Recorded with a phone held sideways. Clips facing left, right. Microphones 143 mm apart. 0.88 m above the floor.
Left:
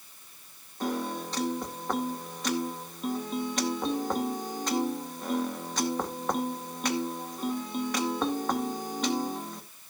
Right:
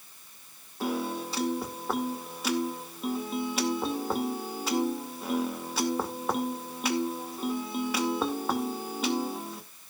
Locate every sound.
0.8 s a piano: 5° right (ahead or behind), 2.5 m